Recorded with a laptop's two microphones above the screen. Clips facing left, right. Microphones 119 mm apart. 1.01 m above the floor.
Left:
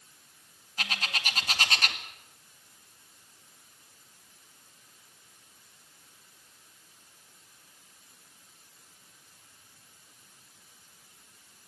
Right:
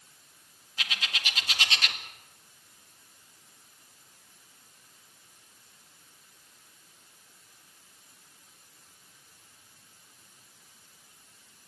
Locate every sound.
0.8 s a bird: 45° left (ahead or behind), 1.9 m